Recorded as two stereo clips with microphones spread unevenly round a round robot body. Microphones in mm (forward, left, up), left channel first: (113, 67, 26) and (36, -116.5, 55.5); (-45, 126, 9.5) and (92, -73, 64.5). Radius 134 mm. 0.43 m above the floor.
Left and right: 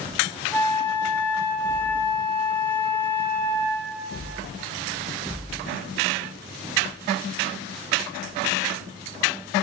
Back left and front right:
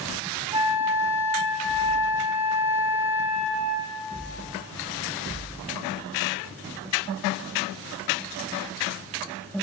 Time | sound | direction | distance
0.5 | a flute | 15° left | 1.1 m